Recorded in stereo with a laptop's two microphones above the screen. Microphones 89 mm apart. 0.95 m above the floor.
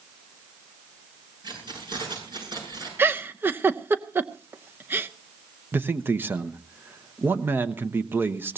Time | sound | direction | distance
1.4 | keys jangling | 60° right (ahead or behind) | 7 m
3.0 | a giggle | 25° right (ahead or behind) | 0.6 m
5.7 | a man speaking | 25° right (ahead or behind) | 0.8 m